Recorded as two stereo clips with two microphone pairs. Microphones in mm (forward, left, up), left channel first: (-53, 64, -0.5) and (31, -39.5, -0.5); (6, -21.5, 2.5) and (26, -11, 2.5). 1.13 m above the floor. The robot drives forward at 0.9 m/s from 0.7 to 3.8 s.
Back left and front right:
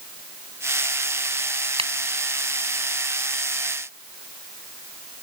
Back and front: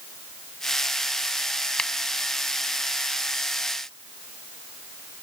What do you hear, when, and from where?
1.8 s a finger snap: 100° right